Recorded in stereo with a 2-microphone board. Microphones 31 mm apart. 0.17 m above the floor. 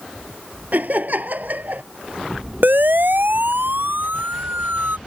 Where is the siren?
80° right.